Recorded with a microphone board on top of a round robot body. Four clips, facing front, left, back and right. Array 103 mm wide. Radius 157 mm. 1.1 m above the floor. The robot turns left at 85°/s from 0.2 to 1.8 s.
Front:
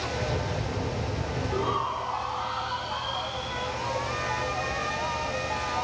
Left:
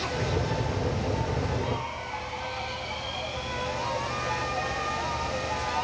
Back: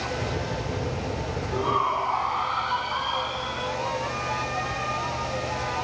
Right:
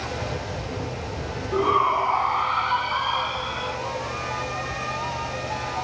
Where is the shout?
85° right; by 3.8 s 110° right.